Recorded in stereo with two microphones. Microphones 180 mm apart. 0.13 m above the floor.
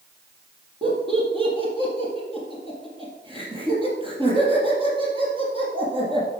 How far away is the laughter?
About 4.5 m.